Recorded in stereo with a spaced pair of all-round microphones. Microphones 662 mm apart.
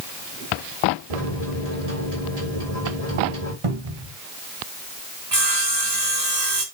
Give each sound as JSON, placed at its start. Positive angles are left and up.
{"t": 1.1, "sound": "a microwave", "side_deg": -65, "distance_m": 4.0}
{"t": 3.6, "sound": "a cupboard door", "side_deg": -50, "distance_m": 1.6}
{"t": 5.3, "sound": "sawing", "side_deg": -70, "distance_m": 3.5}